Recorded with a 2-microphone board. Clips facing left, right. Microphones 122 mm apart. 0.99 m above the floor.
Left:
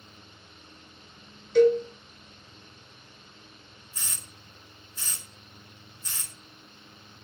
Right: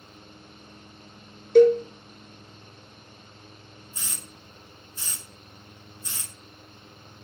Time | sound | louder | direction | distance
1.6 | a cowbell | right 4 dB | 50° right (ahead or behind) | 0.7 m
3.9 | a hiss | right 1 dB | 25° right (ahead or behind) | 1.8 m